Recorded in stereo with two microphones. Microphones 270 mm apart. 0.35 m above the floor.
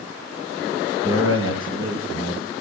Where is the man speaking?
50° right (ahead or behind), 5.5 m.